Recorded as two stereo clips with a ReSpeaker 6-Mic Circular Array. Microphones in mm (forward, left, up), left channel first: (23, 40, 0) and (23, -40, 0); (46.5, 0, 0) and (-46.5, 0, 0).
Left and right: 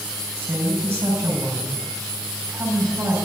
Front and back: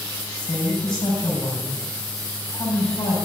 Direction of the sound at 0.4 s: 25° right.